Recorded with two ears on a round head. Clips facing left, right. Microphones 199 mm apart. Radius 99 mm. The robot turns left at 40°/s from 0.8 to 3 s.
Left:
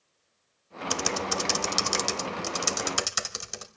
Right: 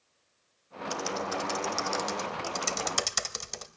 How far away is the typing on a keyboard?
About 0.9 m.